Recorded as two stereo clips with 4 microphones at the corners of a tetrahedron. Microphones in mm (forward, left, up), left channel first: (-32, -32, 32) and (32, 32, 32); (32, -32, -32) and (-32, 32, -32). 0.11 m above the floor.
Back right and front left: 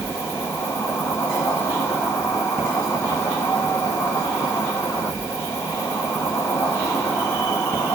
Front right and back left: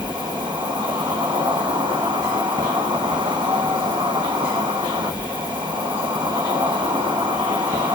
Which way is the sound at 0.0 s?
160° left.